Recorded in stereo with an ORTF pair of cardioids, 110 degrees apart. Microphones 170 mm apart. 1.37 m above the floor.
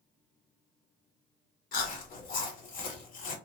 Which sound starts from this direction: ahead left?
Chewing, at 1.7 s.